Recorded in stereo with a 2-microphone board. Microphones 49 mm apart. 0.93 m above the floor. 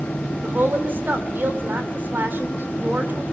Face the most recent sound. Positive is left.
turn(degrees=-40)  # may be behind; listen again after turning